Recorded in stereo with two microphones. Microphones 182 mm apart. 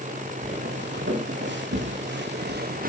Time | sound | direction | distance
0.4 | footsteps | 80° right | 4 m